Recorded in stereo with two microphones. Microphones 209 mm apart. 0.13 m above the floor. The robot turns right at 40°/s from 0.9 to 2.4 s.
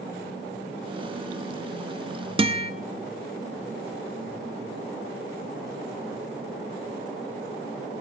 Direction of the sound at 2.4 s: 25° right (ahead or behind).